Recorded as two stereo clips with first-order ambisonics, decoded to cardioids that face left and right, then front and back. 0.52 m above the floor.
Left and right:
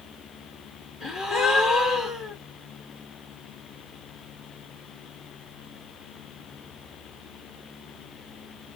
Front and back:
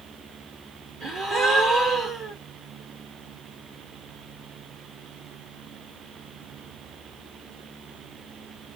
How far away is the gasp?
About 1.8 m.